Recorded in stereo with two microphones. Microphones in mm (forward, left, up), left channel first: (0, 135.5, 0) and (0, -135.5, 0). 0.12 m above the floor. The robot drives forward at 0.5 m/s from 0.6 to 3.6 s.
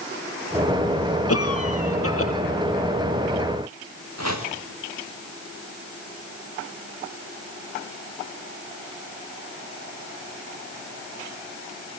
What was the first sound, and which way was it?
A cough, 60° left (ahead or behind).